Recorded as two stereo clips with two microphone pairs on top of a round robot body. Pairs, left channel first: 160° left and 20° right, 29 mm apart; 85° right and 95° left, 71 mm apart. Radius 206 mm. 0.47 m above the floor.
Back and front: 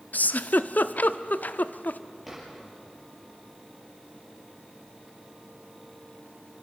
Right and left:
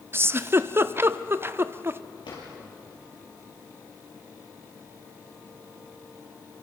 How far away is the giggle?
About 0.6 m.